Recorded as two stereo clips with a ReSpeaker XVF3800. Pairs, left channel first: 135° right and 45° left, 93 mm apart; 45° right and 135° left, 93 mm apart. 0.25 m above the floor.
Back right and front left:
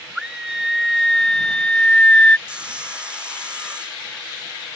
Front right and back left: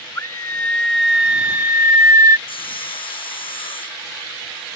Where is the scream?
30° right; by 2.4 s 155° left.